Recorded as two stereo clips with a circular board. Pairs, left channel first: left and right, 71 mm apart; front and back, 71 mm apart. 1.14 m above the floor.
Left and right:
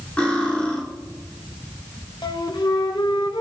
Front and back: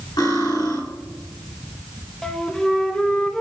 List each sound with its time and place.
0.2 s cutlery clinking: 15° left, 4.5 m
2.2 s a flute: 85° left, 0.7 m